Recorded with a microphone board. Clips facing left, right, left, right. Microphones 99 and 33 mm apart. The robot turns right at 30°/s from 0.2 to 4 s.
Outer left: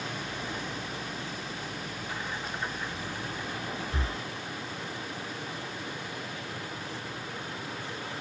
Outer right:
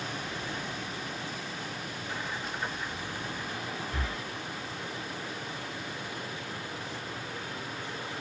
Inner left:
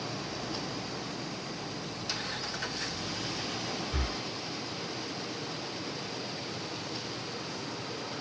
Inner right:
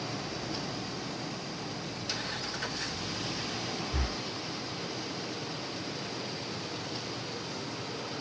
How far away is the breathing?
About 1.2 m.